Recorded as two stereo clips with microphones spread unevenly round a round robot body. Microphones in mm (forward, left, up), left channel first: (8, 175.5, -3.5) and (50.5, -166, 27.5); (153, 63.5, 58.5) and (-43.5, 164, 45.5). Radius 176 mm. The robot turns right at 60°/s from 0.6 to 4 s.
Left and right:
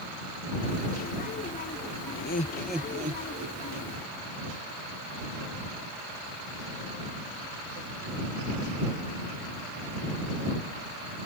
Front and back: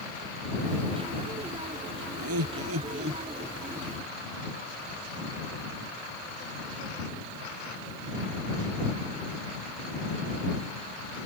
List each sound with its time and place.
2.2 s laughter: 155° left; by 3.9 s 105° right